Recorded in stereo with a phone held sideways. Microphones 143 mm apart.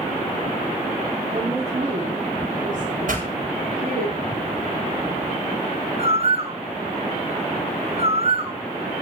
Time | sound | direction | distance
1.3 | a woman speaking | 40° right (ahead or behind) | 4 m
3.1 | a pop | 70° right (ahead or behind) | 6.5 m
6.0 | a bird | 45° right (ahead or behind) | 1.5 m